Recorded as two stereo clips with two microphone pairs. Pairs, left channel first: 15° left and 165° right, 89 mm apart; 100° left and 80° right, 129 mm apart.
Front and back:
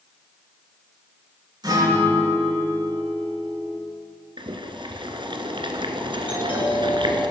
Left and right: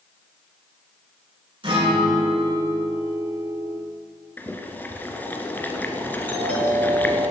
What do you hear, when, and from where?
1.6 s a guitar: 130° right, 6.5 m
4.4 s boiling: 175° left, 1.5 m
6.3 s a doorbell: 20° left, 5 m